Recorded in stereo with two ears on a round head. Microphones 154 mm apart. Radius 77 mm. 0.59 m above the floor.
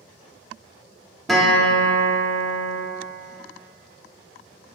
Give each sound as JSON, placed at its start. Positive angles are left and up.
{"t": 1.3, "sound": "a guitar", "side_deg": 0, "distance_m": 0.7}